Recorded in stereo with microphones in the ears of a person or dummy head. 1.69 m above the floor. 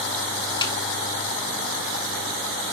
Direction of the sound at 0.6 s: 30° left (ahead or behind).